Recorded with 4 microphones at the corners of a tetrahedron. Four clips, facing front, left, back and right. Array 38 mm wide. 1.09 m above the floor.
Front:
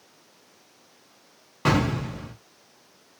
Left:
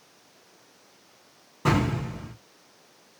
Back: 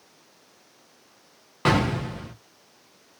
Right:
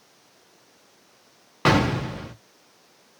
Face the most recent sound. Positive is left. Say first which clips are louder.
# right 5 dB, back 1 dB
turn(degrees=-100)